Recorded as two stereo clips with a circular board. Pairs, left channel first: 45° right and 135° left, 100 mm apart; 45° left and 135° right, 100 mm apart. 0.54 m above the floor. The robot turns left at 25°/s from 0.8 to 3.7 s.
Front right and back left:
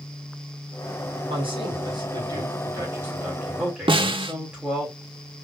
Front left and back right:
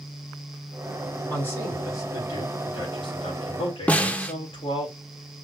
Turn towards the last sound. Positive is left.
turn(degrees=120)